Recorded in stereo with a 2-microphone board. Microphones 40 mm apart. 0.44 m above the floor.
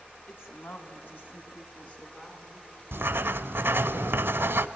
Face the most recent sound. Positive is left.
turn(degrees=-80)